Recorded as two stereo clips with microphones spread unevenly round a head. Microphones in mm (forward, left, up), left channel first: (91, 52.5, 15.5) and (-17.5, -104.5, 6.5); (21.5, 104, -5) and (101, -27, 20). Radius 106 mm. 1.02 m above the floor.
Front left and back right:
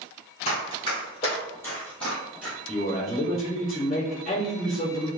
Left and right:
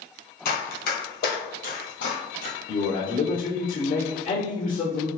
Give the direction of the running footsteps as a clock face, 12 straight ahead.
8 o'clock.